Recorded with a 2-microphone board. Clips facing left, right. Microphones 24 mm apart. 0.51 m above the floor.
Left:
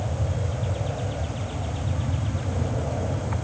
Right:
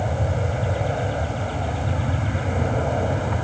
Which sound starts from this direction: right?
An aircraft, at 0.0 s.